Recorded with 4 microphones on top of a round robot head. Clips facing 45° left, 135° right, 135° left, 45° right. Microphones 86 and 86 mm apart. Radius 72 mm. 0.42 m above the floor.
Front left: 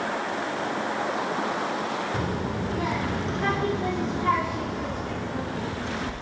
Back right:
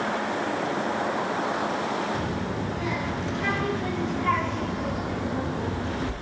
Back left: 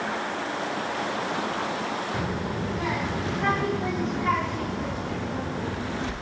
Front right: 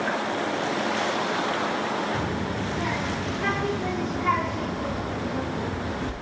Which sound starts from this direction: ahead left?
A child speaking, at 2.1 s.